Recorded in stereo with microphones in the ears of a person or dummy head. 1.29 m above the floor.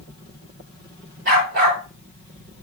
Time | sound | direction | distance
1.2 | a dog barking | 60° right (ahead or behind) | 6.5 m